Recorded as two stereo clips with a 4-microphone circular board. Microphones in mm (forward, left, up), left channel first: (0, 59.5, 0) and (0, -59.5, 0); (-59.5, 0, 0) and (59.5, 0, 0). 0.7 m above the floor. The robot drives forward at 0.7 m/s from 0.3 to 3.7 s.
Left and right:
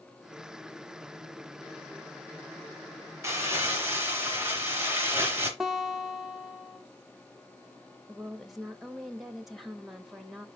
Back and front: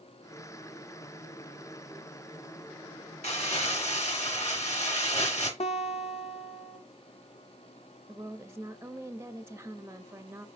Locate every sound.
3.2 s crumpling: 155° right, 2.5 m; by 5.5 s 160° right, 3 m
5.6 s a guitar: 175° right, 1.3 m
8.1 s a woman speaking: straight ahead, 0.8 m